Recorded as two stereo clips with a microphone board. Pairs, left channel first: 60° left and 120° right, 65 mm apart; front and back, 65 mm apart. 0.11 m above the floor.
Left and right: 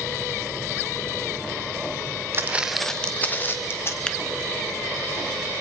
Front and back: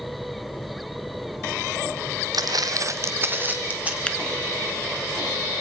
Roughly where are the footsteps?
Behind.